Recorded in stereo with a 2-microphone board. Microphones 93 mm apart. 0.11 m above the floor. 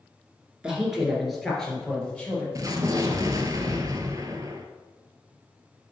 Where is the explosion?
40° right (ahead or behind), 0.8 m.